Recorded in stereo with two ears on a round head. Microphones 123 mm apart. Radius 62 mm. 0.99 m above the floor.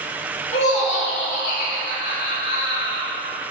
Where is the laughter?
50° left (ahead or behind), 1.8 m; by 3.1 s 75° left (ahead or behind), 2.5 m.